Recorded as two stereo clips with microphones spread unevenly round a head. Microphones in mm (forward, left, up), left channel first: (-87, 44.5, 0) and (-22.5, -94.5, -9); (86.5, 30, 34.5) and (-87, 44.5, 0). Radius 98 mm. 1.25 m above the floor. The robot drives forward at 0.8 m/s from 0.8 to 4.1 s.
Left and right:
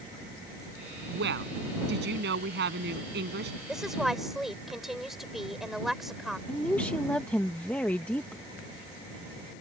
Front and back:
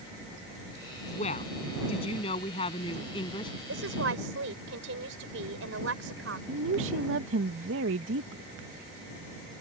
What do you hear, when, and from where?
1.1 s a woman speaking: 65° right; by 3.5 s 70° right
3.7 s a woman speaking: 155° right
6.5 s a woman speaking: 165° right